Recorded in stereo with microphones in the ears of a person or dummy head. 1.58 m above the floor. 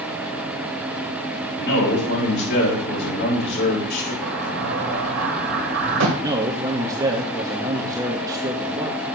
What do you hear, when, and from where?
1.6 s a man speaking: 55° left (ahead or behind), 4 m
4.2 s an explosion: 65° right (ahead or behind), 1.3 m
6.2 s a man speaking: 20° right (ahead or behind), 0.8 m